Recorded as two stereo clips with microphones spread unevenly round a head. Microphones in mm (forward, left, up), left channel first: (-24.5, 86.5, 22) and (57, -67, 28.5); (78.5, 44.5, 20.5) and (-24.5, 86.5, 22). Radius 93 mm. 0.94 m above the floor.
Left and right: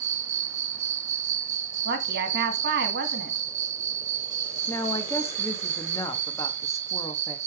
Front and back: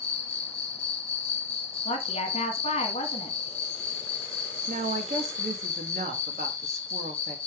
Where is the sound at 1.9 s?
55° right, 1.6 m.